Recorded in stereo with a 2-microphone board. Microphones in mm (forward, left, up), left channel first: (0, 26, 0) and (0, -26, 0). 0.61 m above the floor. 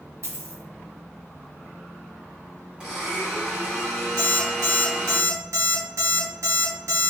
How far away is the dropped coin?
About 0.6 m.